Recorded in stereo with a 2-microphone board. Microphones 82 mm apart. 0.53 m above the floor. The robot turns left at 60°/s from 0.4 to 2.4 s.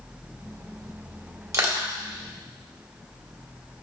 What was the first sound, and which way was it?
Crushing, 35° right (ahead or behind).